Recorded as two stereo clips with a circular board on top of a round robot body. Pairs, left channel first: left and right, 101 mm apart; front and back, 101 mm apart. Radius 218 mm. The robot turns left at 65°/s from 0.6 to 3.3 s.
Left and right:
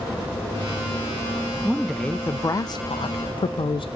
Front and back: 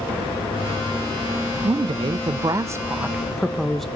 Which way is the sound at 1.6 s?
165° right.